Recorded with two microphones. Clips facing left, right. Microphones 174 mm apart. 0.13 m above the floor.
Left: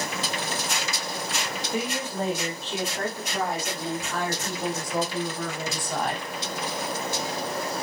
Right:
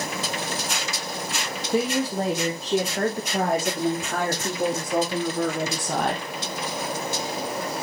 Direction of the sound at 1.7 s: 35° right (ahead or behind).